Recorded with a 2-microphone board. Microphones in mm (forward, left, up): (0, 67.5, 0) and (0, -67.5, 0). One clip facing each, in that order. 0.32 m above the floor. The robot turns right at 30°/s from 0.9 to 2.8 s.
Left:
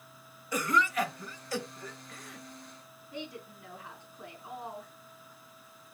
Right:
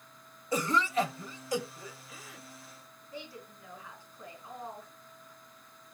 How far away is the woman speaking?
About 4 m.